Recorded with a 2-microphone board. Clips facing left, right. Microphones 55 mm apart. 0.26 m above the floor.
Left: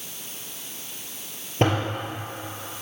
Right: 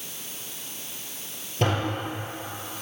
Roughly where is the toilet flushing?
Left.